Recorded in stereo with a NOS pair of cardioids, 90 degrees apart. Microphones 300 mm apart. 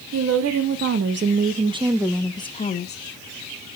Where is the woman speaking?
60° right, 1.9 m; by 3.0 s 40° left, 1.2 m.